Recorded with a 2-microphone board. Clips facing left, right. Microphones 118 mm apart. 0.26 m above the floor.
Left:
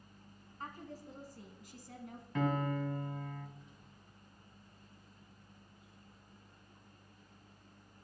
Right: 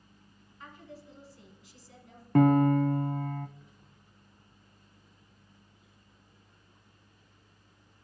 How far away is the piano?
About 0.7 m.